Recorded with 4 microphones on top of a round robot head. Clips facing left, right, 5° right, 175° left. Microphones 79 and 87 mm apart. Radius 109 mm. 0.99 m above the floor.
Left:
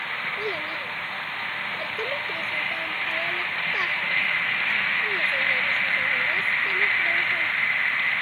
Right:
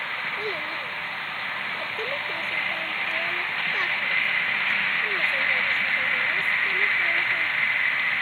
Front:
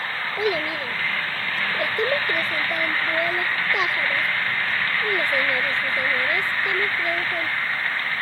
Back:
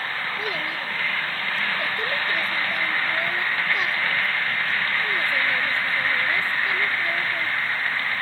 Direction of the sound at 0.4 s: 5° left.